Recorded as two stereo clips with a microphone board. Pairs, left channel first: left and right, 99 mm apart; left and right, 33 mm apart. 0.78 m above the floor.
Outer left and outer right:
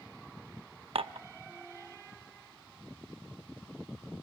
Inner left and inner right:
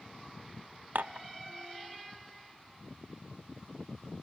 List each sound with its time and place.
0.9 s dishes clattering: 65° right (ahead or behind), 0.6 m